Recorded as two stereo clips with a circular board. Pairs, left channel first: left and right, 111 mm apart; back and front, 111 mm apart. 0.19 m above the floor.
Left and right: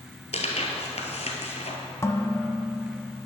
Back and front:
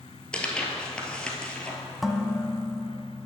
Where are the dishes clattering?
90° left, 0.8 m.